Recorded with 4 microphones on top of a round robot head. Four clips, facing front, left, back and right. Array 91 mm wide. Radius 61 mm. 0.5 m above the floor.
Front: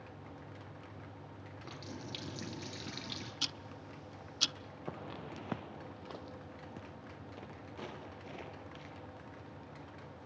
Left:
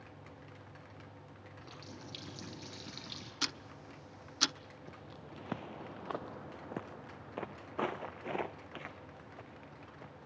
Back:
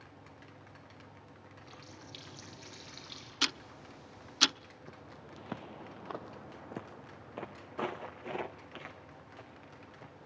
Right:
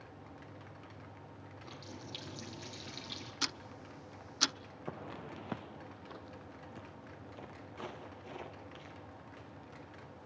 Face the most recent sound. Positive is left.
turn(degrees=120)